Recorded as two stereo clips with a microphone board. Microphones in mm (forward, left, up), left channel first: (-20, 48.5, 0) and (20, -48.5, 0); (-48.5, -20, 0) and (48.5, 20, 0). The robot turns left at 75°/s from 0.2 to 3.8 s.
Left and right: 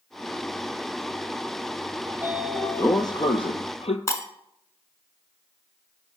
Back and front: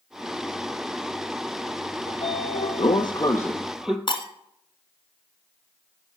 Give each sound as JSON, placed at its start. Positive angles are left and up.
{"t": 2.1, "sound": "a sliding door", "azimuth_deg": -125, "distance_m": 0.8}
{"t": 4.1, "sound": "breaking glass", "azimuth_deg": 170, "distance_m": 1.1}